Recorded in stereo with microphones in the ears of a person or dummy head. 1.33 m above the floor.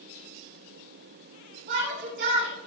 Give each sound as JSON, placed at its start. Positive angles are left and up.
{"t": 1.7, "sound": "a shout", "side_deg": -65, "distance_m": 6.5}